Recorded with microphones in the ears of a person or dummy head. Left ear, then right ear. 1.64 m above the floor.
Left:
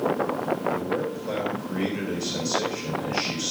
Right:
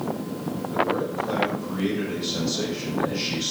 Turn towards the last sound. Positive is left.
turn(degrees=60)  # may be behind; listen again after turning